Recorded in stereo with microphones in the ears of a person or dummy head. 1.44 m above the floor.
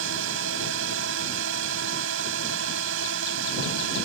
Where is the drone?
80° right.